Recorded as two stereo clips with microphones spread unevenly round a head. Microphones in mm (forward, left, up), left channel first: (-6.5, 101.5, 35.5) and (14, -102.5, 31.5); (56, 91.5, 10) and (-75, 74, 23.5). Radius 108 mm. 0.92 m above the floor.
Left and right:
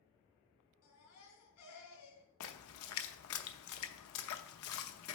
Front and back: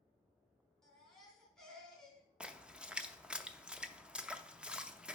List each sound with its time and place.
0.8 s a baby crying: 95° left, 3 m
2.4 s a splash: 110° left, 0.7 m